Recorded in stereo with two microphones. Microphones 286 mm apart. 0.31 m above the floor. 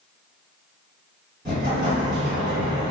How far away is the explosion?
About 1.9 m.